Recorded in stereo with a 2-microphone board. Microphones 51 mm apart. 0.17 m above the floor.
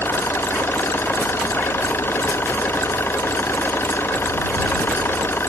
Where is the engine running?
50° left (ahead or behind).